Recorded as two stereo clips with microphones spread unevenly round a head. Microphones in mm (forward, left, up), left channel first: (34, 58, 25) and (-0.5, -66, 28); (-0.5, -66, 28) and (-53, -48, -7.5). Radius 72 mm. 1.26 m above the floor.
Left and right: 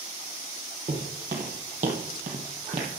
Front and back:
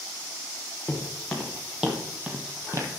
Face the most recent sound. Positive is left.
turn(degrees=-140)